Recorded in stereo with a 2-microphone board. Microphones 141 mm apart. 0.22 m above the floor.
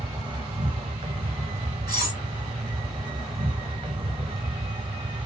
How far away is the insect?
About 0.8 m.